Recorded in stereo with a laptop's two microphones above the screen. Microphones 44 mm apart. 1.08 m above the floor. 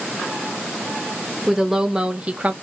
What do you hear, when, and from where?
1.5 s a woman speaking: 5° right (ahead or behind), 1.2 m; by 2.5 s 35° right (ahead or behind), 0.9 m